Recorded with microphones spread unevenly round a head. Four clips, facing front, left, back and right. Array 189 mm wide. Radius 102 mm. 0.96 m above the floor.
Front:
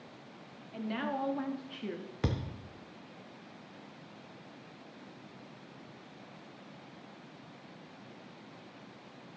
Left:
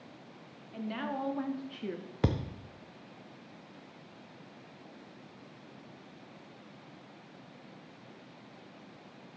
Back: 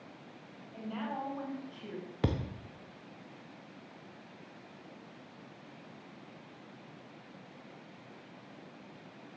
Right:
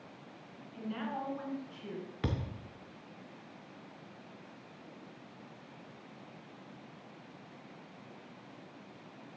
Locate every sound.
0.7 s a woman speaking: 35° left, 1.8 m; by 2.1 s 80° left, 1.2 m
2.2 s a thud: 105° left, 0.6 m